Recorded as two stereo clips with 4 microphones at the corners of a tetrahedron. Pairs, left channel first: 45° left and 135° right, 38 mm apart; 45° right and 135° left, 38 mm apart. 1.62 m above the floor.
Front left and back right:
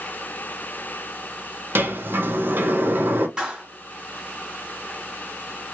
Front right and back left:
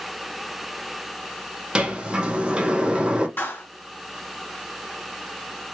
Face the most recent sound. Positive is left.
turn(degrees=-70)